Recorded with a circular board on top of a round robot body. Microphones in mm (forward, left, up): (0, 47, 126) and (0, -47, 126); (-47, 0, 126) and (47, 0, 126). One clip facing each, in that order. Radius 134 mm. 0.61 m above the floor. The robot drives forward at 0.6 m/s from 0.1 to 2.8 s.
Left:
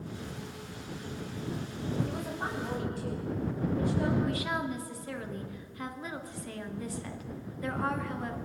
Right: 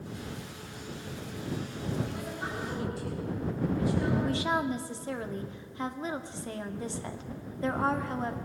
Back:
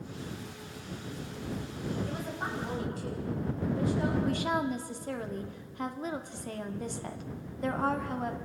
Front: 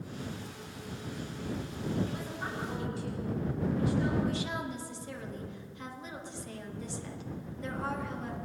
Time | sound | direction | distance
2.0 | a woman speaking | 130° left | 4.5 m
4.2 | a woman speaking | 150° right | 2 m